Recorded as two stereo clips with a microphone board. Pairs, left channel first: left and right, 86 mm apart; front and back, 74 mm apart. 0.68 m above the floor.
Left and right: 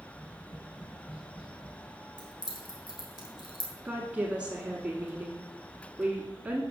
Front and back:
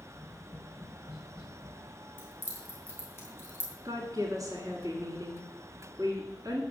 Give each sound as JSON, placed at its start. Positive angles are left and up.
{"t": 0.1, "sound": "tapping", "azimuth_deg": 85, "distance_m": 4.0}
{"t": 2.2, "sound": "keys jangling", "azimuth_deg": 65, "distance_m": 3.0}
{"t": 3.9, "sound": "a woman speaking", "azimuth_deg": -165, "distance_m": 1.6}